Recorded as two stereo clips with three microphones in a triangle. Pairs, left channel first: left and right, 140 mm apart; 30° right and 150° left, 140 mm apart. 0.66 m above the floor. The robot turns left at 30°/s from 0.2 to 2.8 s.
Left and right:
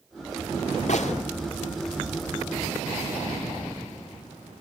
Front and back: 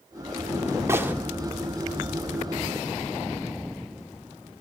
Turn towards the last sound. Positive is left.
turn(degrees=25)